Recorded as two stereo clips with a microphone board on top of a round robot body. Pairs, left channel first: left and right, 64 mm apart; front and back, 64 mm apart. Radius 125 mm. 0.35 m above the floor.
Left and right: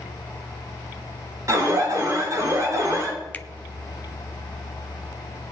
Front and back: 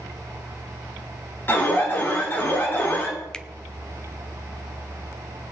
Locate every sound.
1.5 s an alarm: 55° right, 5 m
3.3 s a finger snap: 65° left, 0.9 m